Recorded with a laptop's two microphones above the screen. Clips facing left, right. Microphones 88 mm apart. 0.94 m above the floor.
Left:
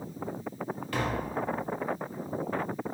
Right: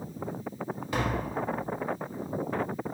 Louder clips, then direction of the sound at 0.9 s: Right 1 dB; 20° right (ahead or behind).